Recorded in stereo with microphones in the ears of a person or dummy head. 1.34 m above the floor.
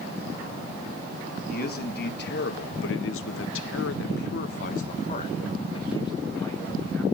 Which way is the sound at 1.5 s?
55° left (ahead or behind).